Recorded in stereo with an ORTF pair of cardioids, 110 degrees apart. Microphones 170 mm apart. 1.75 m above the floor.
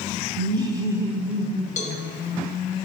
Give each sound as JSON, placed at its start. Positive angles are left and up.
{"t": 0.4, "sound": "laughter", "azimuth_deg": -30, "distance_m": 1.0}
{"t": 1.8, "sound": "a cowbell", "azimuth_deg": 45, "distance_m": 0.9}